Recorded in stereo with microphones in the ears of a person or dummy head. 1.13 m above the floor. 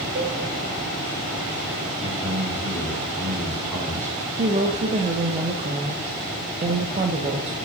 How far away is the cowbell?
About 1.3 m.